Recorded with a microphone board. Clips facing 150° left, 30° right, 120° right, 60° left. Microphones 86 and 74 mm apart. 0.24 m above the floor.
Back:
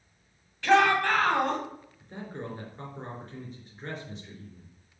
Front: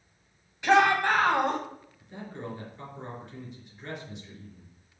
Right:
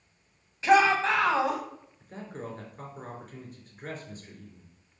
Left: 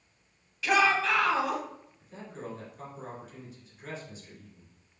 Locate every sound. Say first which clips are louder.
0.6 s a shout: even, right 4 dB; 90° right, 1.7 m
2.0 s a man speaking: back 1 dB, right 2 dB; 160° right, 3 m